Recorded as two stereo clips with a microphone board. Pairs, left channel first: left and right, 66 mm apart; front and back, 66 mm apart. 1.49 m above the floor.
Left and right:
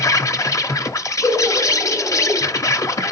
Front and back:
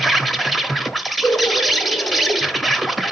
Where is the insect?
90° left, 0.9 m.